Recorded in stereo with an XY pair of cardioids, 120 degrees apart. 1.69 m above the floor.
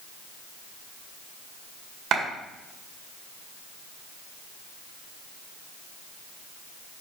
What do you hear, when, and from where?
2.1 s a clap: 60° right, 2 m